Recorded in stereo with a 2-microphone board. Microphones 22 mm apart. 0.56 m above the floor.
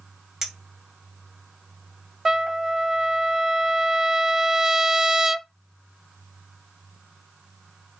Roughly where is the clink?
Right.